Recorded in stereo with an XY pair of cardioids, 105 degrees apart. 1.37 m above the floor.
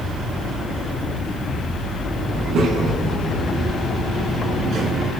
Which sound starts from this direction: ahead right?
A child speaking, at 2.3 s.